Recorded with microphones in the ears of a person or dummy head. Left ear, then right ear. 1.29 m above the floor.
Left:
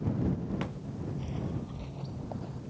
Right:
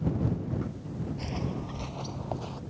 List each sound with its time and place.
1.2 s footsteps: 50° right (ahead or behind); by 2.6 s 55° right (ahead or behind)